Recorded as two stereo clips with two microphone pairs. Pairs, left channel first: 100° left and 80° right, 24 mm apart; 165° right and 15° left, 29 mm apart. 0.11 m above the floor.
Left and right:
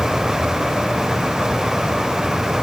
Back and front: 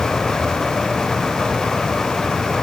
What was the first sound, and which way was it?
Only background noise.